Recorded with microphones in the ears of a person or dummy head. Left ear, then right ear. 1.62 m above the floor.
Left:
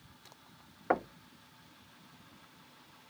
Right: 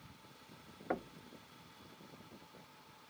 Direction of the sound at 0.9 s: 20° left (ahead or behind).